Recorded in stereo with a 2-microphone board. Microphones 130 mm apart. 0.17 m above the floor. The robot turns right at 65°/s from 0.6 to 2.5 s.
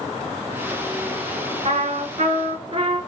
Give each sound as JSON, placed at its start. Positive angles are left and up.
{"t": 1.6, "sound": "a trumpet", "azimuth_deg": -110, "distance_m": 0.7}